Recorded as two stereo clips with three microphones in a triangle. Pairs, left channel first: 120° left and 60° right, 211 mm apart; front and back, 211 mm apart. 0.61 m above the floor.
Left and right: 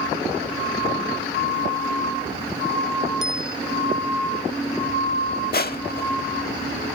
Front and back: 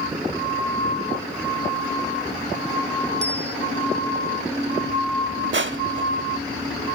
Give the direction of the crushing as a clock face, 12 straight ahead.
7 o'clock.